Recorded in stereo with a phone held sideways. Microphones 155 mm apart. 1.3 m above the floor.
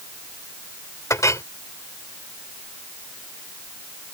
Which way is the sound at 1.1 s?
20° left (ahead or behind).